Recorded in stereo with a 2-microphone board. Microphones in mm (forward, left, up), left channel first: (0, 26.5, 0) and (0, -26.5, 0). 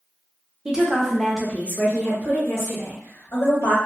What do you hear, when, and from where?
0.7 s a woman speaking: 15° right (ahead or behind), 0.8 m; by 3.8 s 65° left (ahead or behind), 1.6 m